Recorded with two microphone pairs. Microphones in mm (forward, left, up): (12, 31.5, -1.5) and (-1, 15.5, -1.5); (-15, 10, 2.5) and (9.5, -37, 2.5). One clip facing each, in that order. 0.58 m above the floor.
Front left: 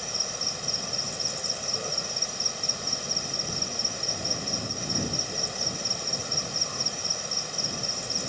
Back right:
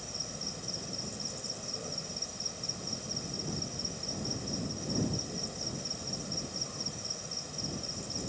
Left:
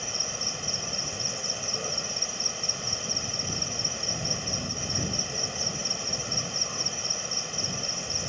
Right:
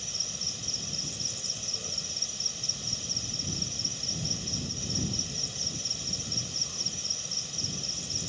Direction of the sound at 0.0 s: 80° left.